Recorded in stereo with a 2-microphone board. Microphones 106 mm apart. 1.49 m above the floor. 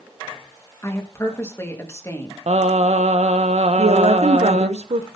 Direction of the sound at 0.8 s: 25° left (ahead or behind).